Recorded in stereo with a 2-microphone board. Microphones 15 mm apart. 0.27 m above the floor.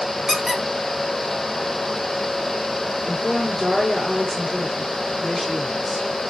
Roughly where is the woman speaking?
Centre.